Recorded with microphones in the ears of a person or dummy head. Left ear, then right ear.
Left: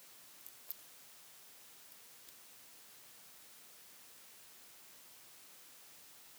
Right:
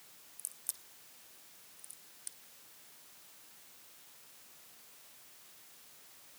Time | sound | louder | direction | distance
0.4 | a crack | right 14 dB | 70° right (ahead or behind) | 2.0 m